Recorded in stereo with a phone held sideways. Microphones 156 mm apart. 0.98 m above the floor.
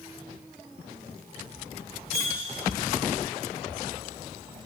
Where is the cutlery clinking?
40° right (ahead or behind), 1.1 m.